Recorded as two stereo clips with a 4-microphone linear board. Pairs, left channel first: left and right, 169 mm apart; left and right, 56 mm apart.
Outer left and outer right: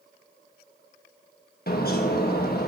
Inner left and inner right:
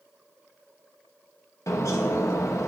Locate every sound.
1.7 s a bird: 65° left (ahead or behind), 1.4 m